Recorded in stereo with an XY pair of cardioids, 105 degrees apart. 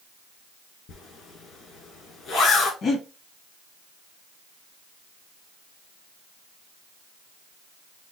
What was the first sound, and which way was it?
A zipper, 65° left.